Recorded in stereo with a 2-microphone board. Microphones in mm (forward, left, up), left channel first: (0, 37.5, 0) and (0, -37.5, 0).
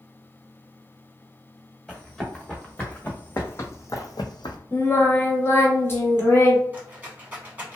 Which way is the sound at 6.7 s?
20° right (ahead or behind).